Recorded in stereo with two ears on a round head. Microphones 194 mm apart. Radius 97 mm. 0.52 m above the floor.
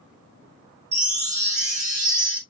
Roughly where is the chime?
Right.